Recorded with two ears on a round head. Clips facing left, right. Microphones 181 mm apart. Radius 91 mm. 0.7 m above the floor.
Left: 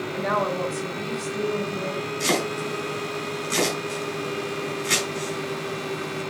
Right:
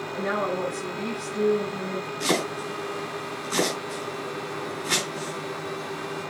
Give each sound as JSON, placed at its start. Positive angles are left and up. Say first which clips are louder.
{"t": 0.1, "sound": "a woman speaking", "louder": "left 1 dB", "side_deg": 75, "distance_m": 3.5}
{"t": 2.2, "sound": "chopping", "louder": "left 1 dB", "side_deg": 30, "distance_m": 3.0}